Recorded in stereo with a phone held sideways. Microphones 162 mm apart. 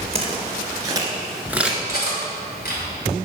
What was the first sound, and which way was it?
Footsteps, 35° right (ahead or behind).